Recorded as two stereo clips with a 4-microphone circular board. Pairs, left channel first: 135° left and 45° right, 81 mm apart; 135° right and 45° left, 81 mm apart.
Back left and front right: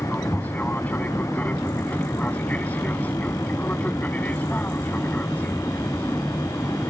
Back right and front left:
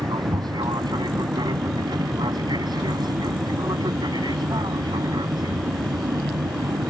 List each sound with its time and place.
0.0 s an aircraft: 65° left